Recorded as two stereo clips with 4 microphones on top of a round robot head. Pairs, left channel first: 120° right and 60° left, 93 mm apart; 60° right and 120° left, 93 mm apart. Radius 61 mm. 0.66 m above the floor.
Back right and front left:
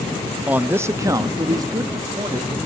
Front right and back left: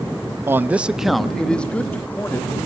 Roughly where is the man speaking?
Behind left.